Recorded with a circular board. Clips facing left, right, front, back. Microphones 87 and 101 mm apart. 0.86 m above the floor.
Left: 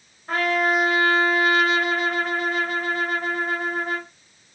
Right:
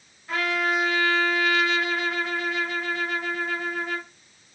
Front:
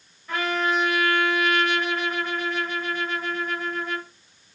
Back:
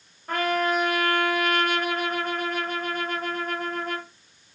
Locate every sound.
0.3 s a trumpet: 135° left, 0.8 m